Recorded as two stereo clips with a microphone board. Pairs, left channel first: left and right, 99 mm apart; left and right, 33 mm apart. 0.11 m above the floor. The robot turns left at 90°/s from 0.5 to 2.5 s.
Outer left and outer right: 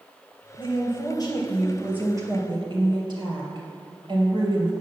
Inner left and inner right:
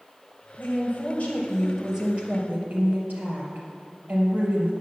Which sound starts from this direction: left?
A woman speaking, at 0.6 s.